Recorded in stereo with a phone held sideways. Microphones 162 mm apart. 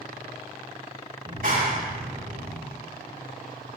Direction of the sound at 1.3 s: 60° right (ahead or behind).